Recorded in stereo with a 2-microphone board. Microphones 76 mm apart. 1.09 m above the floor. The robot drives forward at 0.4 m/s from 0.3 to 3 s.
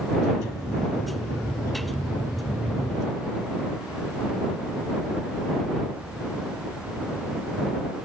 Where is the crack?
No crack in this recording.